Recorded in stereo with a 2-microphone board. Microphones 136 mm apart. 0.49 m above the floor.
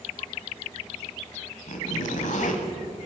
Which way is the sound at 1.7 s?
65° left (ahead or behind).